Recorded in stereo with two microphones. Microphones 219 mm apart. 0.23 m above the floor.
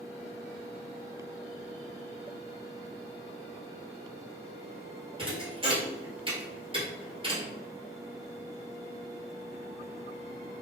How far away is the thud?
About 1.1 m.